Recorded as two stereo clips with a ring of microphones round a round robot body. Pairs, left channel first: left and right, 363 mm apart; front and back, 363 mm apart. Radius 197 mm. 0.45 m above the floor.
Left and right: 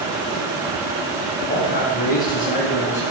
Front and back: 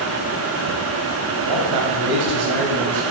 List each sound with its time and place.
1.4 s a man speaking: 155° left, 3 m; by 3.0 s 165° left, 3.5 m